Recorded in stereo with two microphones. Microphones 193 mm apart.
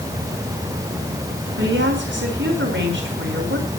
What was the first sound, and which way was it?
A woman speaking, 80° right.